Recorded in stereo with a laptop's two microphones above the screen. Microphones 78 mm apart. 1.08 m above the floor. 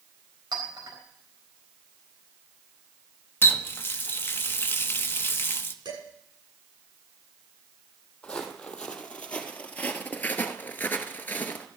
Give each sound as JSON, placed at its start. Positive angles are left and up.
{"t": 0.5, "sound": "a clink", "side_deg": -65, "distance_m": 4.5}
{"t": 3.4, "sound": "a running tap", "side_deg": 30, "distance_m": 0.9}
{"t": 5.8, "sound": "dishes clattering", "side_deg": -75, "distance_m": 8.5}
{"t": 8.2, "sound": "footsteps", "side_deg": 10, "distance_m": 2.5}